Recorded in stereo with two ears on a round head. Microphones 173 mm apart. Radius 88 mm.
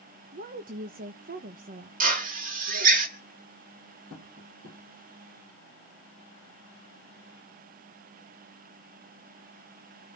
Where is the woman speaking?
45° right (ahead or behind), 1.0 m.